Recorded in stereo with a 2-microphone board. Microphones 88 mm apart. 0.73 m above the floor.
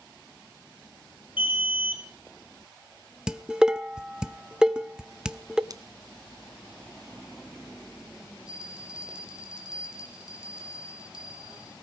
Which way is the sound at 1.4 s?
80° left.